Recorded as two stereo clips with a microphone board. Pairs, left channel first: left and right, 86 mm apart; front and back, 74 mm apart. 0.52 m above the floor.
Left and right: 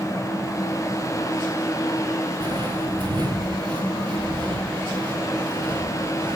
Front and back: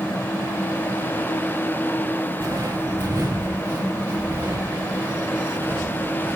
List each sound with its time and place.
2.4 s footsteps: 125° right, 3 m; by 6.4 s 115° right, 6.5 m